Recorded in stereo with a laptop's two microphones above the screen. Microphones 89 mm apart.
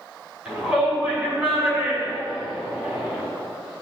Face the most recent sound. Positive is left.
turn(degrees=-15)  # may be behind; listen again after turning